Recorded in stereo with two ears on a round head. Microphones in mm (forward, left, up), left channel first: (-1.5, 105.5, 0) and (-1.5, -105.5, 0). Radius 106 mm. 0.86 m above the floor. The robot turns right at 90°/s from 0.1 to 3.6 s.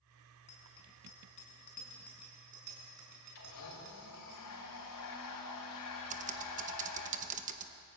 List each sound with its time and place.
0.5 s a bicycle bell: 30° left (ahead or behind), 5.5 m; by 4.3 s 50° right (ahead or behind), 5.5 m
3.4 s a blender: 55° left (ahead or behind), 5 m; by 7.1 s 75° left (ahead or behind), 5 m
6.1 s typing on a keyboard: 30° right (ahead or behind), 1.0 m